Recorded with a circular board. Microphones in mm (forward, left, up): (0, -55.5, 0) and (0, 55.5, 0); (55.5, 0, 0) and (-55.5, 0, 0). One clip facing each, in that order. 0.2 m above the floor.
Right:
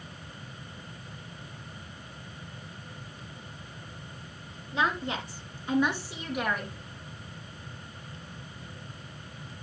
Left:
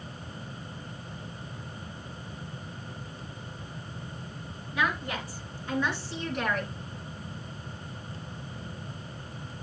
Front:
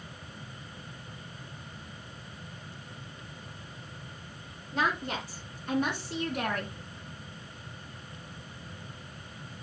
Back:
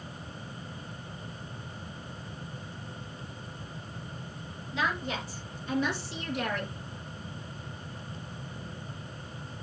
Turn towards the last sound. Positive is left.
turn(degrees=-5)